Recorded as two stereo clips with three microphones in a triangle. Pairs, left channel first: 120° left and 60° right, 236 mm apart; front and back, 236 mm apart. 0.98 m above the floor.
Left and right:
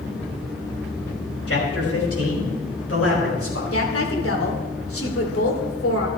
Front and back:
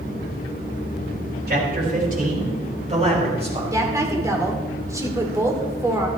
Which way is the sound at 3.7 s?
105° left.